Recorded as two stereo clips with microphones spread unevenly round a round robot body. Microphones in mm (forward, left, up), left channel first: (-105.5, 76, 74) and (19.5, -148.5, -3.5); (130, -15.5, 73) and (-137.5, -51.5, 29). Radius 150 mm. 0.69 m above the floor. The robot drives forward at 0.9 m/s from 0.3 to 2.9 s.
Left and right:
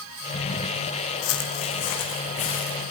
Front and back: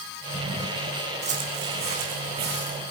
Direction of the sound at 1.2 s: 115° left.